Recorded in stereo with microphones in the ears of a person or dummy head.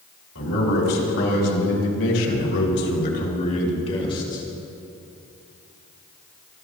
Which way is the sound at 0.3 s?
70° left (ahead or behind).